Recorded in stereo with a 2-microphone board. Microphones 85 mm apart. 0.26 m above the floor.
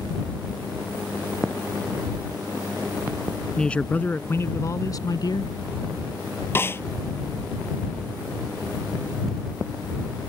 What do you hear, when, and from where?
3.6 s a man speaking: 10° left (ahead or behind); by 5.5 s 60° left (ahead or behind)
6.5 s a snare drum: 30° left (ahead or behind)